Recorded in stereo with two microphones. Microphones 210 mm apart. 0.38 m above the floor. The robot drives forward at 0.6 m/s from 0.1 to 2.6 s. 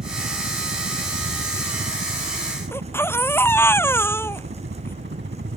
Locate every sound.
0.0 s a helicopter: 60° right (ahead or behind)
2.7 s a baby crying: 10° left (ahead or behind)